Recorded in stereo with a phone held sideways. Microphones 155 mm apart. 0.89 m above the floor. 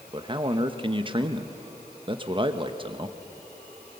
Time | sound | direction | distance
0.1 | a man speaking | 30° right (ahead or behind) | 1.1 m